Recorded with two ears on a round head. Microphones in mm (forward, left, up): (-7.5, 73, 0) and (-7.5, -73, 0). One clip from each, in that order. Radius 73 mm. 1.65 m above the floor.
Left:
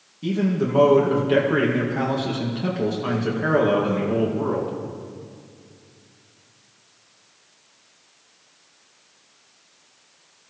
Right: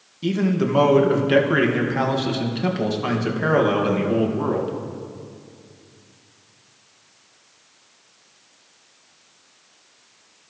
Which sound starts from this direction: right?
A man speaking, at 0.2 s.